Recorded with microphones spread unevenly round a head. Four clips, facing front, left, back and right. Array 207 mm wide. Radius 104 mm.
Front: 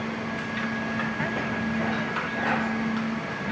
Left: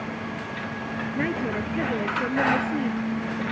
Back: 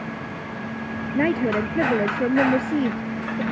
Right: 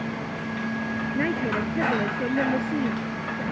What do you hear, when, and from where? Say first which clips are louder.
1.1 s a woman speaking: right 1 dB, back 8 dB; 175° right